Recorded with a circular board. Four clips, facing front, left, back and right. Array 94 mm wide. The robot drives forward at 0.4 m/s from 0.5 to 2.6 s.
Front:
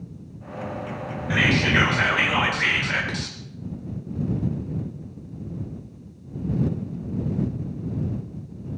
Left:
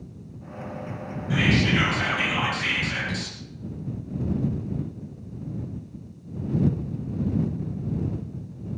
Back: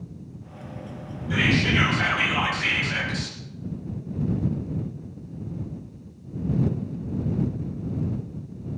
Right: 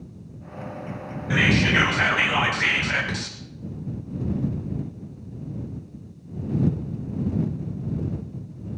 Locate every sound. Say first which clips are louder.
1.3 s whispering: right 1 dB, front 1 dB; 35° right, 3.5 m; by 3.4 s 45° right, 3 m